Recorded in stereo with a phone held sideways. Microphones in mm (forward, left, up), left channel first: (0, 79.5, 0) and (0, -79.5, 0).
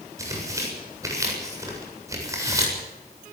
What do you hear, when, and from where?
0.2 s tearing paper: 20° right (ahead or behind), 7.5 m